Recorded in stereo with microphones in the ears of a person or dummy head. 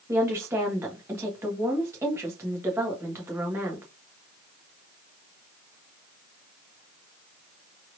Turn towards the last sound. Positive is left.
turn(degrees=-15)  # may be behind; listen again after turning